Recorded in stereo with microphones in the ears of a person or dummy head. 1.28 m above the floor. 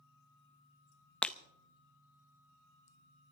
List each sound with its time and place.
1.2 s breaking glass: 10° left (ahead or behind), 0.6 m